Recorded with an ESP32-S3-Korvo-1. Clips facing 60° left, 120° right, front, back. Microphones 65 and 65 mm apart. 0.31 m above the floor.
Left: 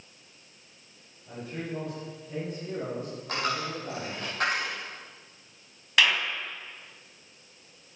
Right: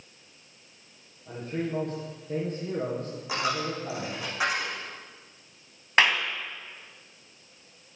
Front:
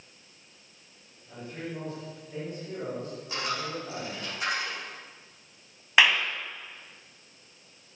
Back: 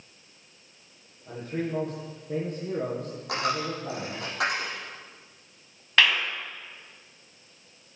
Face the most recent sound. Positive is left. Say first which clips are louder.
# right 2 dB, front 1 dB
turn(degrees=-70)